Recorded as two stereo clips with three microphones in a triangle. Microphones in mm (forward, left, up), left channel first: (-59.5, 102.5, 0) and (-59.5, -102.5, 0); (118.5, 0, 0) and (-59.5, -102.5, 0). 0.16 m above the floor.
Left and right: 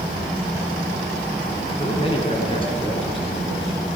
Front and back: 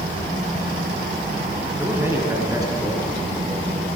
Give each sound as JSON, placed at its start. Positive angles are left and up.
{"t": 1.8, "sound": "a man speaking", "azimuth_deg": 130, "distance_m": 1.8}